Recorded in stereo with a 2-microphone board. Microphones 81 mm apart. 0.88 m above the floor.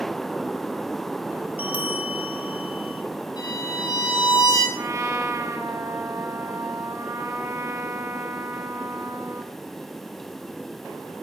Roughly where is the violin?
Left.